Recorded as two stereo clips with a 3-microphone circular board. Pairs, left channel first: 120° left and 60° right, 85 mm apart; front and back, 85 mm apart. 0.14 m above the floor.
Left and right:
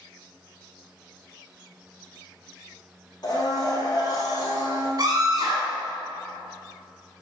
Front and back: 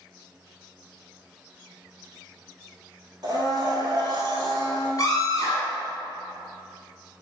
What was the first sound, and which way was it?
A blender, 145° left.